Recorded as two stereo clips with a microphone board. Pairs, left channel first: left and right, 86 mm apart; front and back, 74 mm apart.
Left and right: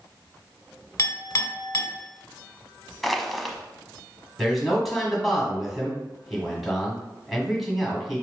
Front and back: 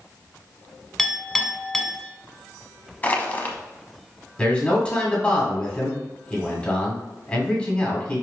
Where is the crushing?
Straight ahead, 0.6 m.